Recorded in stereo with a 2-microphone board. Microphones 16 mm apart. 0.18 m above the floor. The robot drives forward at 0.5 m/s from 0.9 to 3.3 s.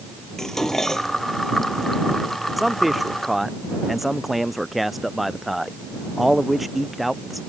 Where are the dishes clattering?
35° left (ahead or behind); by 1.2 s 30° left (ahead or behind).